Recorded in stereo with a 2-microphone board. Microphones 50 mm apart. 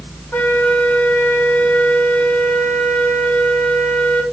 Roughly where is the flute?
Left.